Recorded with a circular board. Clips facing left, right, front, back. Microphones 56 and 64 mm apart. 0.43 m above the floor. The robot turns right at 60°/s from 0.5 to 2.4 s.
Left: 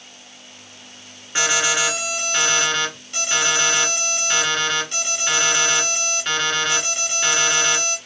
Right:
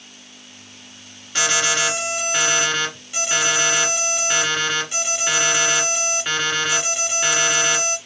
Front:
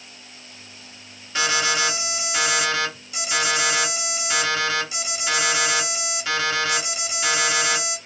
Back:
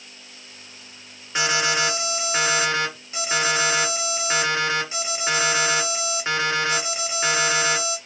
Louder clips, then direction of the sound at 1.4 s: Even, even; 130° left.